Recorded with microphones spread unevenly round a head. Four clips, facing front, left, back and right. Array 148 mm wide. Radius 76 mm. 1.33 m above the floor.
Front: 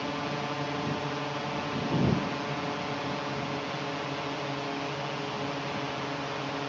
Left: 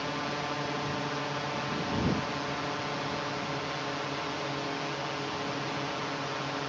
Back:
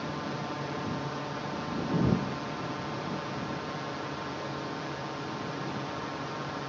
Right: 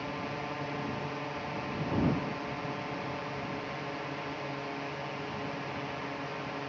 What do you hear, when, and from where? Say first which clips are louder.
0.0 s a drone: left 3 dB, front 2 dB; 20° left